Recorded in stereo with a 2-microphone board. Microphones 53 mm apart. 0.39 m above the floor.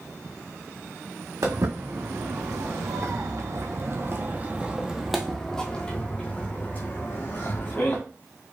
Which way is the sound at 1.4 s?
75° right (ahead or behind).